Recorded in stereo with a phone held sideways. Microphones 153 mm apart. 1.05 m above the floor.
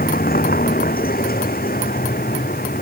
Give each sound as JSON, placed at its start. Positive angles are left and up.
{"t": 0.0, "sound": "a vehicle", "side_deg": 90}